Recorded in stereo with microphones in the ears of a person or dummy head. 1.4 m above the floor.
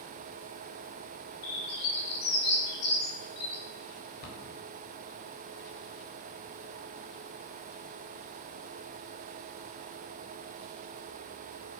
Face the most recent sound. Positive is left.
turn(degrees=75)  # may be behind; listen again after turning